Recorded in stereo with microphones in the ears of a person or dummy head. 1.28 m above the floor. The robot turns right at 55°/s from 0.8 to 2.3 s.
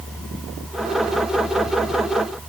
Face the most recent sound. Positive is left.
No sound to turn to.